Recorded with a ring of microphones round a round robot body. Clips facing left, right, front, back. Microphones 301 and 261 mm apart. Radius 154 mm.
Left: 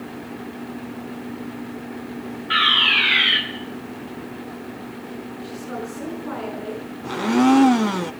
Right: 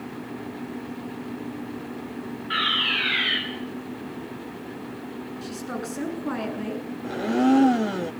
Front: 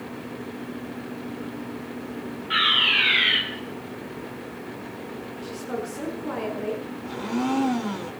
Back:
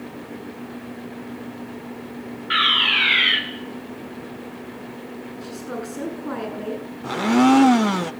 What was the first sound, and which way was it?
A fire alarm, 160° left.